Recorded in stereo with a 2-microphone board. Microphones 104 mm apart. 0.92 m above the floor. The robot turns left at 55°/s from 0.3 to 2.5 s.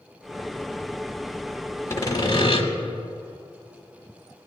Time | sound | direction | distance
1.9 | sawing | 155° left | 1.2 m